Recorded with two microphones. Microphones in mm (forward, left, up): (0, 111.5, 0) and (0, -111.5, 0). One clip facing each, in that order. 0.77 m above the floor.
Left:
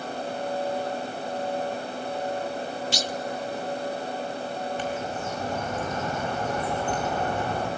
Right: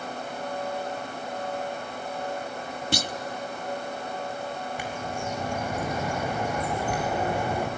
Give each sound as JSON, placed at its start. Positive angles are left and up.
{"t": 2.9, "sound": "a clunk", "side_deg": -55, "distance_m": 0.6}
{"t": 4.8, "sound": "a bird", "side_deg": -10, "distance_m": 4.5}